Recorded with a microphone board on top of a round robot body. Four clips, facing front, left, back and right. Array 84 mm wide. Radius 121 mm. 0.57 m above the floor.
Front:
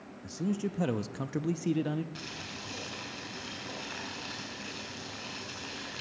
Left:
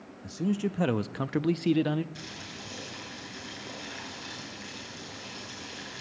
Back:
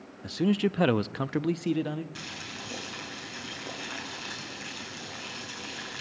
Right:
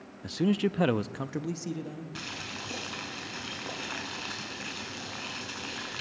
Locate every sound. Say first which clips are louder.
0.2 s a man speaking: right 3 dB, back 7 dB; 140° right, 0.8 m; by 2.0 s 95° left, 0.8 m
2.1 s boiling: right 3 dB, back 2 dB; 100° right, 7.5 m